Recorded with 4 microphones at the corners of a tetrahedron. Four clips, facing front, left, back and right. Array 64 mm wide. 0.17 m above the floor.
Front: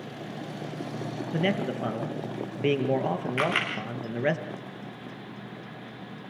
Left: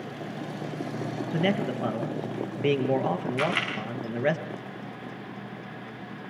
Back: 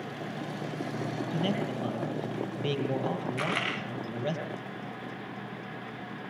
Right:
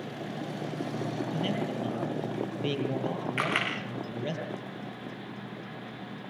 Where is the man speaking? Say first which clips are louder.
Left 8 dB, front 5 dB; 45° left, 2.5 m.